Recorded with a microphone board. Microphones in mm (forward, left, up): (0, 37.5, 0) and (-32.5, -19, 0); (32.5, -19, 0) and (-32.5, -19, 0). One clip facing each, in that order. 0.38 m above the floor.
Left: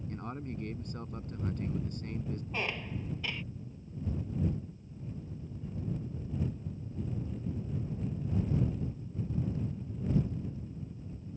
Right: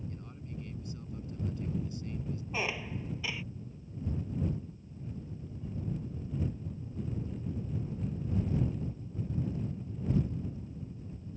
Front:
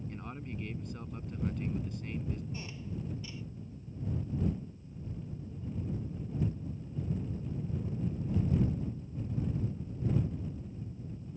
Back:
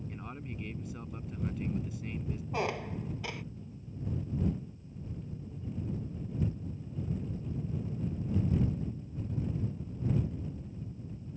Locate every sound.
0.1 s a man speaking: 90° left
2.5 s a squeak: 160° left